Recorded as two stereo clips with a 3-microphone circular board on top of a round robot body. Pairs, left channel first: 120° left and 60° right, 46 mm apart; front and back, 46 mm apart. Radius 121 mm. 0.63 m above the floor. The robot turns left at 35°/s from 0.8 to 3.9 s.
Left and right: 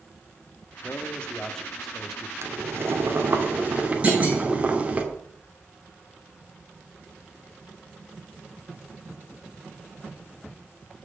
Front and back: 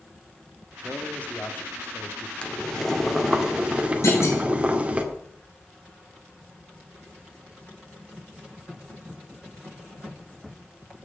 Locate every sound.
0.8 s a man speaking: 70° left, 1.4 m; by 2.3 s 15° left, 1.4 m
2.4 s boiling: 65° right, 2 m; by 5.0 s 120° right, 2 m
4.0 s a clunk: straight ahead, 5 m